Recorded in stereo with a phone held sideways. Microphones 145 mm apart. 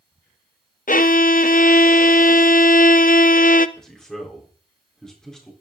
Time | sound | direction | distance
0.9 | a violin | 65° left (ahead or behind) | 0.5 m
3.8 | a man speaking | 5° left (ahead or behind) | 3.5 m